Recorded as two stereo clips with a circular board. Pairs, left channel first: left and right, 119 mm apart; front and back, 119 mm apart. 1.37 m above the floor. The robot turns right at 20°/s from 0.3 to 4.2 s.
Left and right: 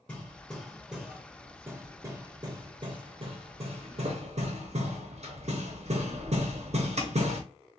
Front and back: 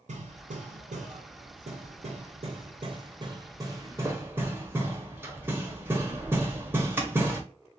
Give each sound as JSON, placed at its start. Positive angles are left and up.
{"t": 0.1, "sound": "hammering", "azimuth_deg": 175, "distance_m": 0.7}